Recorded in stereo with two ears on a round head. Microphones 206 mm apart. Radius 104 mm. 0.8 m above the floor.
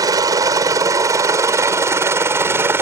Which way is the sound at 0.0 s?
15° right (ahead or behind).